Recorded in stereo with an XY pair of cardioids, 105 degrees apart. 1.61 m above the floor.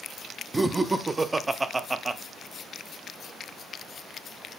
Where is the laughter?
20° right, 0.8 m.